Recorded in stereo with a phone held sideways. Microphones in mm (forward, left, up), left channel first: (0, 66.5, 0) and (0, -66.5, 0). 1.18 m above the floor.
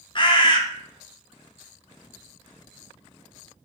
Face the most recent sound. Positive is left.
turn(degrees=40)  # may be behind; listen again after turning